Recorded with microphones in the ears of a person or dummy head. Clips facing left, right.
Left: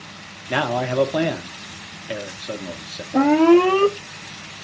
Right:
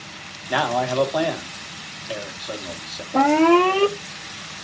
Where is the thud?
No thud in this recording.